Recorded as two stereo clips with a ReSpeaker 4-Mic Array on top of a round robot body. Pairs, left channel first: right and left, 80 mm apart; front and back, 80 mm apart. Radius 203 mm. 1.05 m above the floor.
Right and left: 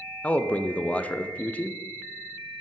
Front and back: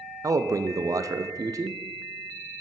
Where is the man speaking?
155° right, 0.6 m.